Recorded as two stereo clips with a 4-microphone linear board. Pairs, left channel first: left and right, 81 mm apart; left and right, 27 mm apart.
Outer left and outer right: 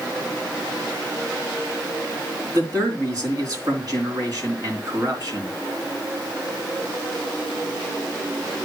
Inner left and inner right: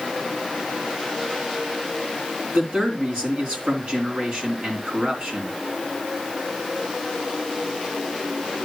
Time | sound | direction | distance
2.5 | a man speaking | 50° right (ahead or behind) | 3 m